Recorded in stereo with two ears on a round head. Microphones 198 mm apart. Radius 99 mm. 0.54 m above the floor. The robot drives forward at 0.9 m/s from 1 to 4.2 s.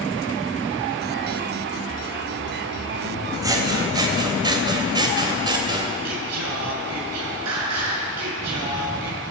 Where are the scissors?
15° right (ahead or behind), 3.5 m; by 6.0 s 20° right (ahead or behind), 3 m.